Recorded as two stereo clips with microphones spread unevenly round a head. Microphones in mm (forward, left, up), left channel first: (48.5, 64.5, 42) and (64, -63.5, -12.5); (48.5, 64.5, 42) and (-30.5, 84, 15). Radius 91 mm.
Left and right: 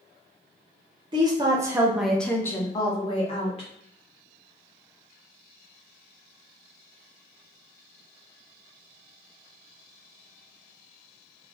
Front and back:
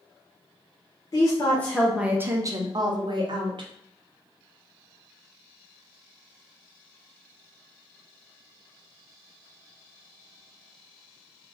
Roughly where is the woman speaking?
Ahead.